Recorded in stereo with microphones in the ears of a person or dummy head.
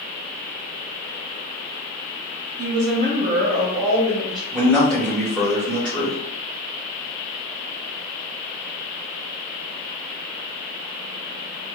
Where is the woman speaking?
75° right (ahead or behind), 0.8 m; by 4.4 s 5° left (ahead or behind), 1.5 m.